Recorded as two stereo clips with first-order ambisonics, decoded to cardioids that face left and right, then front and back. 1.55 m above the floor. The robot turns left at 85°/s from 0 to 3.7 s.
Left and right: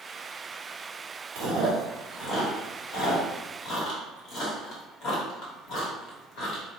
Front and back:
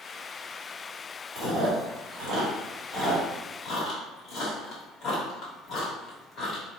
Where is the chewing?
100° right, 1.2 m; by 6.7 s 60° left, 1.2 m.